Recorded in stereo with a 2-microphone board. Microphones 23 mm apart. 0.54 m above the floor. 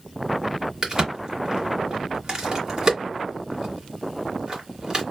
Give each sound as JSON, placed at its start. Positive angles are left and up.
{"t": 0.8, "sound": "a crack", "side_deg": -30, "distance_m": 1.9}